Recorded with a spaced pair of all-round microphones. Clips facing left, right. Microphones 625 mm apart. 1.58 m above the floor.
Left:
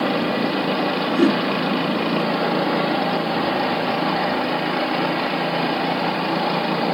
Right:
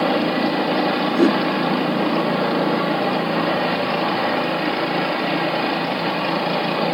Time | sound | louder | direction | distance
1.1 | a whoosh | right 1 dB | 5° left (ahead or behind) | ?